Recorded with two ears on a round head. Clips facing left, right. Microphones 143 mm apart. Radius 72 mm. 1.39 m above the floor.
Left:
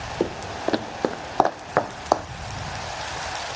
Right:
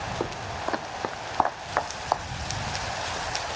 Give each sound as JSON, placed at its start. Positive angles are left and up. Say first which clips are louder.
{"t": 0.2, "sound": "footsteps", "louder": "left 9 dB", "side_deg": 30}